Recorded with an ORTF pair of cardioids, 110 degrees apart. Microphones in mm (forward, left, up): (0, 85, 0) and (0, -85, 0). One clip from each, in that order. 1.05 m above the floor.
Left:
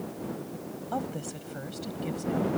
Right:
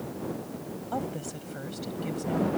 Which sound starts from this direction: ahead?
A woman speaking, at 0.9 s.